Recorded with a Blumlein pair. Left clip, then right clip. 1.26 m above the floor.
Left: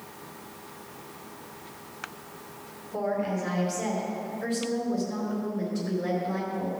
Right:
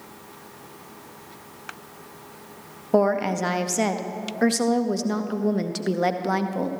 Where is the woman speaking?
50° right, 0.9 m.